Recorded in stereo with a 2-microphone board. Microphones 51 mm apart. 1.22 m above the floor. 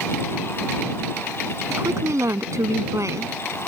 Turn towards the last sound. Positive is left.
turn(degrees=-70)  # may be behind; listen again after turning